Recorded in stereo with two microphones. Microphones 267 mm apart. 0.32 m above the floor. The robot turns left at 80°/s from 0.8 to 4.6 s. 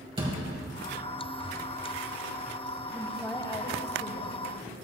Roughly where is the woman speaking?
Behind.